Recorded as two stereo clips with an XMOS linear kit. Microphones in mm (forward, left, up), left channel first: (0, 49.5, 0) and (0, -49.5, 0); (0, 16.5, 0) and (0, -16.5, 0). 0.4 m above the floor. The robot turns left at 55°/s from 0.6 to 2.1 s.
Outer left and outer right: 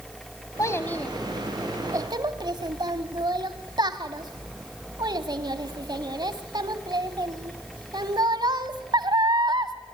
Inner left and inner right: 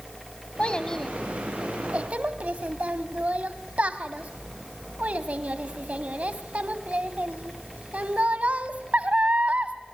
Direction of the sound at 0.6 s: 35° left (ahead or behind).